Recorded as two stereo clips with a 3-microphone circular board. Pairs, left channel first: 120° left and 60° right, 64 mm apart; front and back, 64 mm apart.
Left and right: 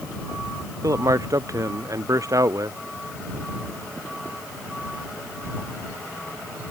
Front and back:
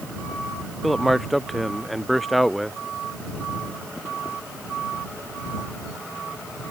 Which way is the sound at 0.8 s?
90° right.